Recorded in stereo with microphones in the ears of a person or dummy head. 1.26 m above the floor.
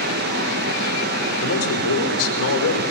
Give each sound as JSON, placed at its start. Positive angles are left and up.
{"t": 0.0, "sound": "a fan", "side_deg": -55, "distance_m": 1.9}
{"t": 1.4, "sound": "a man speaking", "side_deg": 80, "distance_m": 5.0}